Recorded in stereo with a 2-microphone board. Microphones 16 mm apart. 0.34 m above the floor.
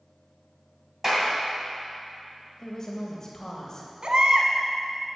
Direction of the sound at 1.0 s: 30° right (ahead or behind).